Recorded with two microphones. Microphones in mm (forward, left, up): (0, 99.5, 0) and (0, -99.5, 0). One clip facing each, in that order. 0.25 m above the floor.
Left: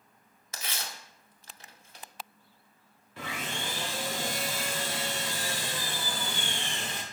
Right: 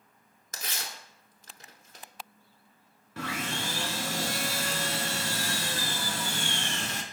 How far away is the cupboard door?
No cupboard door in this recording.